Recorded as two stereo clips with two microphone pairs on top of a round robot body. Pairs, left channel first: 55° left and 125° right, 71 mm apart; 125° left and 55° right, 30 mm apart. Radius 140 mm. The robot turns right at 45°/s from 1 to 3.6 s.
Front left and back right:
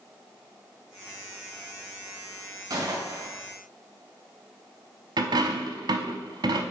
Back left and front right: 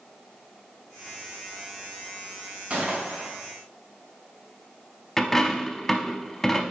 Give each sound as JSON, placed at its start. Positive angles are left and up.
{"t": 2.7, "sound": "a gunshot", "azimuth_deg": -95, "distance_m": 1.9}
{"t": 5.2, "sound": "a dropped coin", "azimuth_deg": -150, "distance_m": 0.6}